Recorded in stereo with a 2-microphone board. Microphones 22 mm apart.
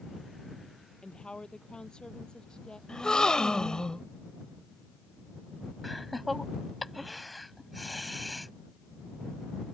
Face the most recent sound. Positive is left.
turn(degrees=0)  # may be behind; listen again after turning